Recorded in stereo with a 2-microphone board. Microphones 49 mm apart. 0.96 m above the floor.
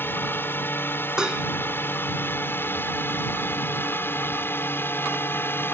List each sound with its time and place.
0.0 s a drone: 45° left (ahead or behind); by 5.7 s 50° left (ahead or behind)
1.2 s dishes clattering: 15° right (ahead or behind)